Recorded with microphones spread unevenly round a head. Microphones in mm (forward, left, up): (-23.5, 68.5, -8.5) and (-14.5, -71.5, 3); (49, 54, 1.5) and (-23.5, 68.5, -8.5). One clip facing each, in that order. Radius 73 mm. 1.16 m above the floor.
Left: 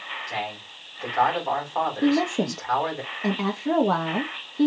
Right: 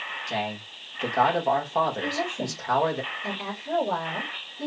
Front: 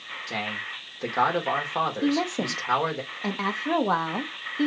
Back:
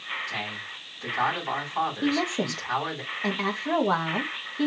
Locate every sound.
0.3 s a man speaking: 25° right, 1.9 m
2.0 s a woman speaking: 70° left, 0.7 m